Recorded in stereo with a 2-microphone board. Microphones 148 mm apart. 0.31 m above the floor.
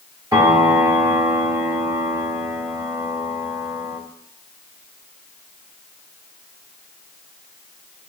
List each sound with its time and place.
0.3 s a piano: 25° right (ahead or behind), 1.5 m